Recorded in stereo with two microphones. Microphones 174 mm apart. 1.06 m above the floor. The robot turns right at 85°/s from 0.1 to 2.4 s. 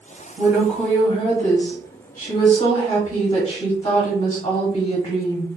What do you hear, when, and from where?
0.4 s a woman speaking: 40° right, 1.2 m; by 5.5 s 135° left, 1.2 m